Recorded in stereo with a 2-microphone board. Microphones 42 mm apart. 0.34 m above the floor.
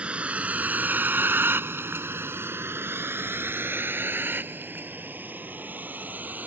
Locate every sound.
0.0 s a vehicle: 30° right (ahead or behind); by 6.5 s 45° right (ahead or behind)